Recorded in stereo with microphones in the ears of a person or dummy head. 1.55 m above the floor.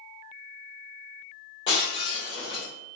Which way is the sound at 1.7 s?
30° left (ahead or behind).